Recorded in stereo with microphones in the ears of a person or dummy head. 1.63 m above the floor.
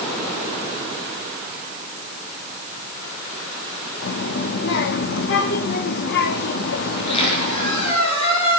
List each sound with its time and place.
4.0 s a child speaking: 60° left (ahead or behind), 1.8 m
6.9 s a squeak: 40° left (ahead or behind), 8 m